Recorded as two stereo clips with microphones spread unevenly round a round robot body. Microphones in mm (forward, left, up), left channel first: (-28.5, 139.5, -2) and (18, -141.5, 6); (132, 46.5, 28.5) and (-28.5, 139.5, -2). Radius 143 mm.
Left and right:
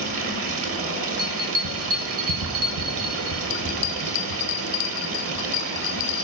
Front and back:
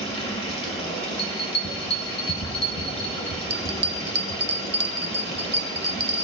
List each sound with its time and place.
0.0 s running water: 95° right, 1.1 m
1.2 s a bell: 30° right, 1.3 m
3.5 s a bell: 120° left, 0.5 m